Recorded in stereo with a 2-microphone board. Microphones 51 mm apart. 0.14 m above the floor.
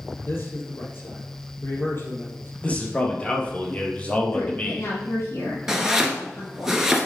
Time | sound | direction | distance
0.2 | a man speaking | 50° left (ahead or behind) | 4.5 m
2.6 | a man speaking | 30° left (ahead or behind) | 3 m
4.3 | a woman speaking | 70° left (ahead or behind) | 4 m
5.7 | chopping | 10° right (ahead or behind) | 2.5 m